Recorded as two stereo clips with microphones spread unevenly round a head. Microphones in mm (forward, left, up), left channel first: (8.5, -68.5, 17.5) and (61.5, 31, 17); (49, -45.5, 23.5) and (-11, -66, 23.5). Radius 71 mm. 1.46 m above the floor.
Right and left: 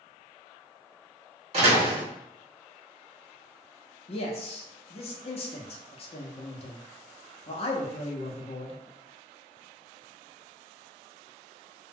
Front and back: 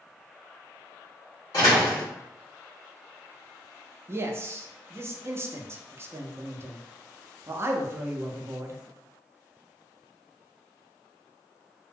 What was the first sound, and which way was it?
A door slam, 70° left.